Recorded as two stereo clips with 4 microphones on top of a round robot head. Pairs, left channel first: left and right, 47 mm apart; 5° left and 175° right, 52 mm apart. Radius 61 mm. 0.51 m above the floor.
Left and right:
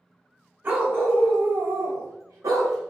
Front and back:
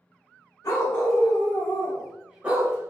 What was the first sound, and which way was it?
A dog barking, 40° right.